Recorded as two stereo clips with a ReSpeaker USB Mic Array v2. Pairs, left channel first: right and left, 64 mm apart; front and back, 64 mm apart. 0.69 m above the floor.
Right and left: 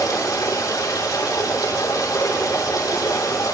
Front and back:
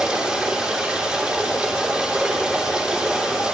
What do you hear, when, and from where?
0.0 s running water: 100° right, 4.5 m